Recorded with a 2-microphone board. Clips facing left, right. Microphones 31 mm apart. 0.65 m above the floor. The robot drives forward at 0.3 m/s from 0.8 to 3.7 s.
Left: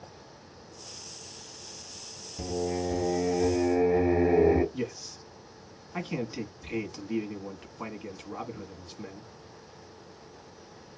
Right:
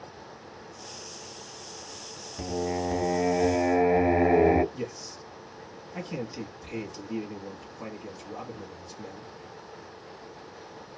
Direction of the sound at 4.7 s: 30° left (ahead or behind).